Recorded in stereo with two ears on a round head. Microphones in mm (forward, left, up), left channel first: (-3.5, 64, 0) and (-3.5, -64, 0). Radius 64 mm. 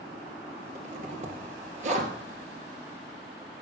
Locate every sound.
0.8 s a zipper: 55° right (ahead or behind), 2.5 m